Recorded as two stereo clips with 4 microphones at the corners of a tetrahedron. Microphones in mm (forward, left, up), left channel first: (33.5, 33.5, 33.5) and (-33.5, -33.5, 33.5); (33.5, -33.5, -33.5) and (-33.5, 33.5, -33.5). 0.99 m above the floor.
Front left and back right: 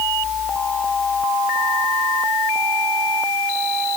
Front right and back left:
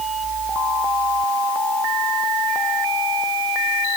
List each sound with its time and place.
Only background noise.